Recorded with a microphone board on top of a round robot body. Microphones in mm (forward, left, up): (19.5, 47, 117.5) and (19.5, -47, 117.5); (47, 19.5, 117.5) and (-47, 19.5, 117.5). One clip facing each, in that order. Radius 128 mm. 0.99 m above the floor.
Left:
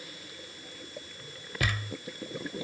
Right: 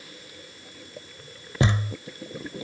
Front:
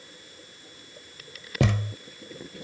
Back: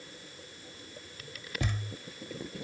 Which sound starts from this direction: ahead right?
A thud, at 1.6 s.